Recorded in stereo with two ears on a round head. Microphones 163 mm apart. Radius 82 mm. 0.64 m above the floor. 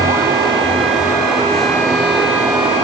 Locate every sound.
Only background noise.